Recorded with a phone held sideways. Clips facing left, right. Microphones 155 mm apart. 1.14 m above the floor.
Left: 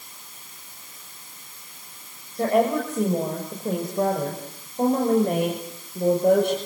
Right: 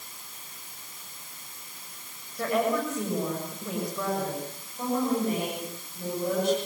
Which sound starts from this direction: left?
A woman speaking, at 2.4 s.